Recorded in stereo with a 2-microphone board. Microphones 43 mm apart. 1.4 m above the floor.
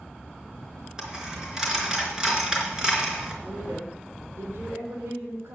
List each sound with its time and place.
1.0 s a dropped coin: 20° right (ahead or behind), 4 m
3.4 s a woman speaking: 75° right (ahead or behind), 5 m